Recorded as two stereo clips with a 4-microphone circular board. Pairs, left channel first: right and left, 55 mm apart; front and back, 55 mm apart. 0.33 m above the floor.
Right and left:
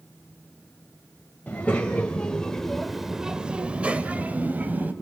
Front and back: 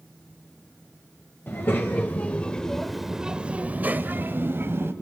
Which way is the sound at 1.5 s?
35° right.